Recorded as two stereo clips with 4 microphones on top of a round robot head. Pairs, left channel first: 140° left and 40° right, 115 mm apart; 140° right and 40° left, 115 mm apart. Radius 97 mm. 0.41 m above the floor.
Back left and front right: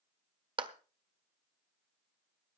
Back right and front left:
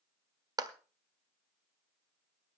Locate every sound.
0.6 s a clap: 5° right, 1.6 m